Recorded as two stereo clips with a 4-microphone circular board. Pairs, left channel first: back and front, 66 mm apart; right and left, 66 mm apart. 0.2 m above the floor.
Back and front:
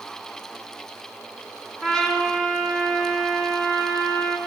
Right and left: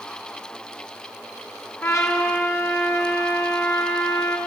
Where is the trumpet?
105° right, 1.9 m.